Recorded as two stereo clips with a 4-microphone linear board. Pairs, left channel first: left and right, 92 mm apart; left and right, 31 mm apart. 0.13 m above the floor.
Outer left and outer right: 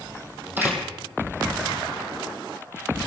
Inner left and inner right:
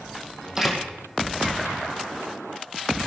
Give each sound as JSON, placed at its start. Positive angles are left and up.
{"t": 0.6, "sound": "a door slam", "side_deg": -20, "distance_m": 3.5}